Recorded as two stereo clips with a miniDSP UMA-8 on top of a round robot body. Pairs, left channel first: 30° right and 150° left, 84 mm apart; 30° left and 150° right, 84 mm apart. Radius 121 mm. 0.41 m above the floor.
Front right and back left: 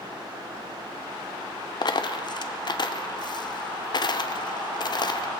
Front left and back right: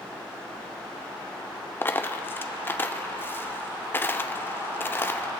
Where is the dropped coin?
30° right, 0.5 m.